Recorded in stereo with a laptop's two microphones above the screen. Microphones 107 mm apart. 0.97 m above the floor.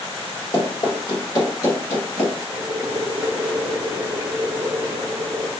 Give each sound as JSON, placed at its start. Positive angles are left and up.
{"t": 0.5, "sound": "running footsteps", "side_deg": 50, "distance_m": 1.4}
{"t": 2.5, "sound": "boiling", "side_deg": -30, "distance_m": 0.6}